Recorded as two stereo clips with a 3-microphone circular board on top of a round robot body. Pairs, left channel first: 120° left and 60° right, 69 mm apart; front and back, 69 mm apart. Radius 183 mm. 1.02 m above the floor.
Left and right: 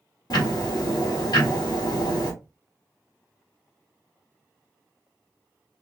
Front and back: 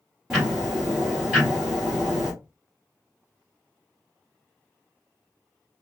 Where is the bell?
No bell in this recording.